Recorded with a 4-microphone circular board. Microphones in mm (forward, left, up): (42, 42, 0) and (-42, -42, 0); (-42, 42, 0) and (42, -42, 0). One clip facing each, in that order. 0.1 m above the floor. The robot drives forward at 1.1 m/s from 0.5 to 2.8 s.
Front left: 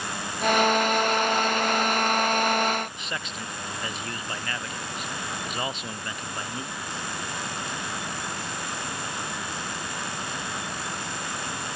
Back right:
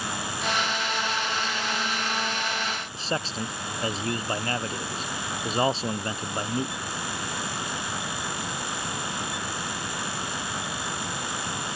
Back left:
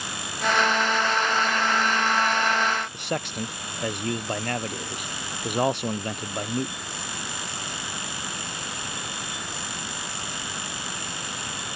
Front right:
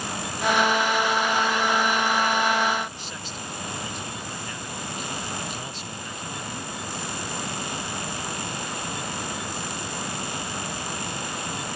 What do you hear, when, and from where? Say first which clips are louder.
2.9 s a man speaking: back right 5 dB, back left 8 dB; 165° left